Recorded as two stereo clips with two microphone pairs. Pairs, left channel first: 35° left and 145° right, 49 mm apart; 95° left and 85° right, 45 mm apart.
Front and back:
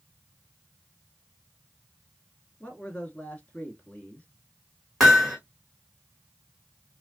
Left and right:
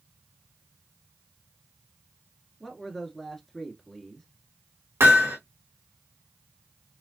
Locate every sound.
2.6 s a man speaking: 20° left, 1.2 m
5.0 s hammering: 60° right, 2.5 m